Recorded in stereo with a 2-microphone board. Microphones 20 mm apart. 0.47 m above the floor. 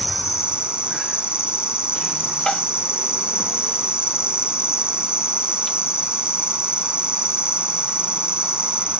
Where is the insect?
70° right (ahead or behind).